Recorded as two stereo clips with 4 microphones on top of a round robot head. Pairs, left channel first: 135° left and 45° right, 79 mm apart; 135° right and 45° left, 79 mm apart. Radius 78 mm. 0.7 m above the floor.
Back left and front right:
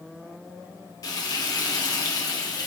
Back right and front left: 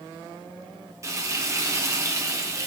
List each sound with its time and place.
1.0 s frying: 95° left, 1.6 m